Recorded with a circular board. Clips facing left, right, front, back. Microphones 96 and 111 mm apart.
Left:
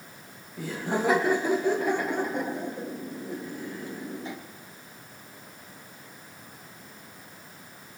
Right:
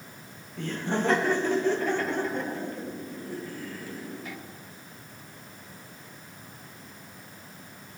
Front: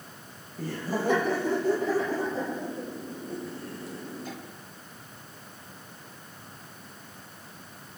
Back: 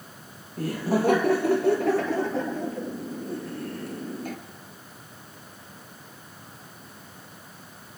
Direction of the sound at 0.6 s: 170° left.